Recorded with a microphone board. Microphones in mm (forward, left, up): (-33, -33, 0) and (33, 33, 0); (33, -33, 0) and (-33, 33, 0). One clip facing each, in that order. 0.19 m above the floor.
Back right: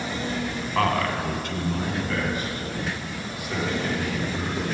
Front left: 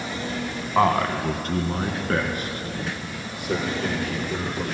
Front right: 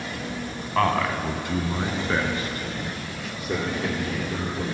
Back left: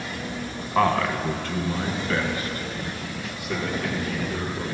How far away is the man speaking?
About 1.1 m.